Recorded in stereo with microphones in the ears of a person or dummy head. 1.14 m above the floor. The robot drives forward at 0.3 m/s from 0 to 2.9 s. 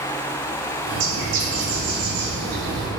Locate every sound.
0.9 s a bird: 65° right (ahead or behind), 3.5 m; by 2.9 s 75° right (ahead or behind), 3 m